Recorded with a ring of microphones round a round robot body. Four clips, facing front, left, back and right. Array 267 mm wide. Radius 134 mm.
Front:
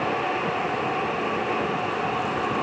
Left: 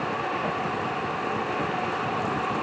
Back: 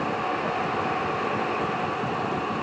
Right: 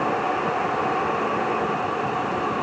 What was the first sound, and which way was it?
Only background noise.